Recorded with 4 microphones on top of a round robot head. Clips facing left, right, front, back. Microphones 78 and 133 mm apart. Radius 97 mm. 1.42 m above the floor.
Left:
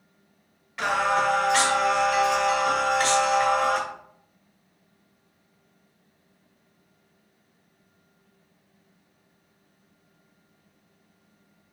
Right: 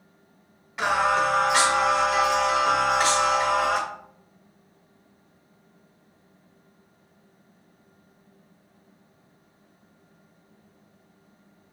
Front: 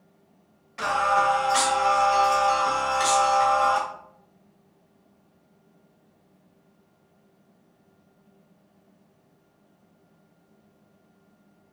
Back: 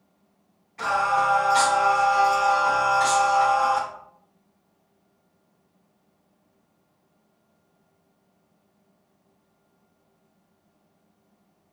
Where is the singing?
20° right, 1.4 m.